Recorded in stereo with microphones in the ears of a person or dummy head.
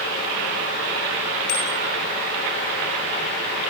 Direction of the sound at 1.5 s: 65° left (ahead or behind).